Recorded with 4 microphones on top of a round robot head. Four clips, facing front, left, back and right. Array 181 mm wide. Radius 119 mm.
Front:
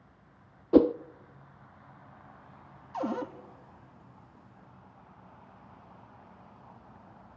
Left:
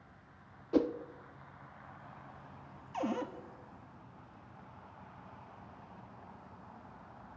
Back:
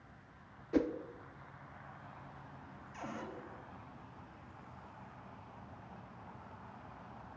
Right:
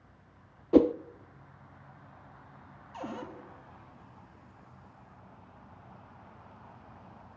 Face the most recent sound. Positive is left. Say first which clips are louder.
# left 4 dB, front 12 dB
turn(degrees=25)